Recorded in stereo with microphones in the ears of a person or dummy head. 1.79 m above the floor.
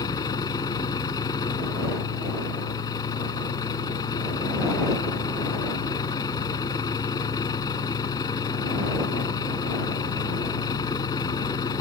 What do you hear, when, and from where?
0.0 s a vehicle: 20° left (ahead or behind)